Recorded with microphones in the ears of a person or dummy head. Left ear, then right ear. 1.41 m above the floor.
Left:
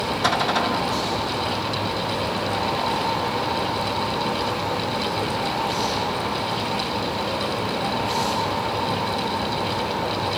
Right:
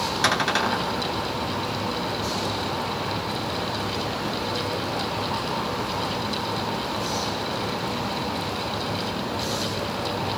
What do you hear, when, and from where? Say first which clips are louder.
0.2 s a cupboard door: left 1 dB; 65° right (ahead or behind), 1.9 m